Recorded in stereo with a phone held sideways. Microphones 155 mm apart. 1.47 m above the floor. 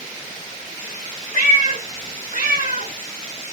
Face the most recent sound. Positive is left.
turn(degrees=-70)  # may be behind; listen again after turning